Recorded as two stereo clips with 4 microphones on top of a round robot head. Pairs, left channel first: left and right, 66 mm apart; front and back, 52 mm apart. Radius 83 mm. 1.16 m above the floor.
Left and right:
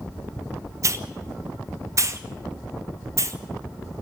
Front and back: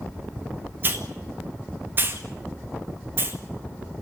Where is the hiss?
130° right, 1.9 m.